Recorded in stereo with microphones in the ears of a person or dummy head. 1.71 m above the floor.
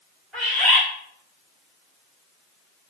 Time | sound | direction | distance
0.3 | a bird | centre (ahead or behind) | 1.6 m